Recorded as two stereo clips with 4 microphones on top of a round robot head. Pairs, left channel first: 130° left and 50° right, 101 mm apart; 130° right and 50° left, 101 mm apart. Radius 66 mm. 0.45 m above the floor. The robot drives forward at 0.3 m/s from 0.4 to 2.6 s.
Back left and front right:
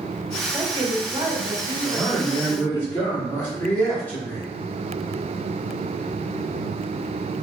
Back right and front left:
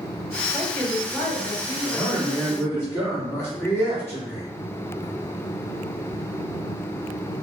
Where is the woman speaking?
60° right, 1.7 m; by 2.8 s 85° right, 1.5 m.